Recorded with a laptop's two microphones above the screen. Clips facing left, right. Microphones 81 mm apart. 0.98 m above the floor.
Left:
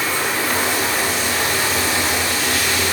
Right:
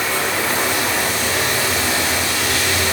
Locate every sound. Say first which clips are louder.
0.0 s running water: right 1 dB; 85° right, 2.5 m